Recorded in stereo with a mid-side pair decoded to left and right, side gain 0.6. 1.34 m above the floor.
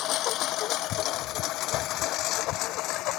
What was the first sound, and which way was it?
A lawn mower, 60° left.